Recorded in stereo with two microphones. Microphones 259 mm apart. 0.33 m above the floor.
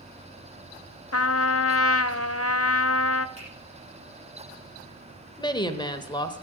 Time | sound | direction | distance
1.1 | a trumpet | 60° left (ahead or behind) | 0.7 m
3.4 | a finger snap | 25° right (ahead or behind) | 9.5 m
5.4 | a woman speaking | 15° left (ahead or behind) | 1.1 m